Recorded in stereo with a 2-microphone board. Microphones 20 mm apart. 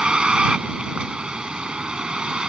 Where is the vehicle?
50° right (ahead or behind).